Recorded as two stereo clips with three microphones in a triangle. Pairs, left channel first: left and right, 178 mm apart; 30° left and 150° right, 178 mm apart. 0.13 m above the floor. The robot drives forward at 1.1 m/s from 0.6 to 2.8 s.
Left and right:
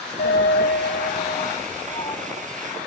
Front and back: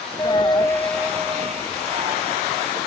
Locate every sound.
0.2 s a dropped coin: 95° left, 0.8 m; by 2.2 s 155° left, 2 m